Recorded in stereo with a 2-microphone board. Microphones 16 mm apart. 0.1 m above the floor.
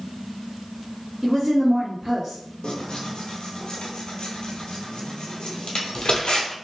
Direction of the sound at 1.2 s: 25° right (ahead or behind).